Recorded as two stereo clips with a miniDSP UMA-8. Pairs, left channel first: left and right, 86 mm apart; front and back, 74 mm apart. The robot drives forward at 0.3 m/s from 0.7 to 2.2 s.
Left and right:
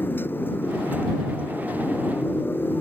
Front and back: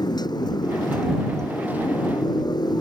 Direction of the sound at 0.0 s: 25° left.